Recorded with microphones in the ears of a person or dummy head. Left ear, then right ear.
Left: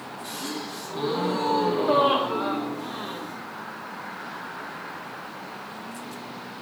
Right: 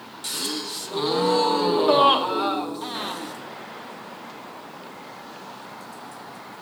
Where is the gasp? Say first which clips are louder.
Right 6 dB; 40° right (ahead or behind), 0.7 m.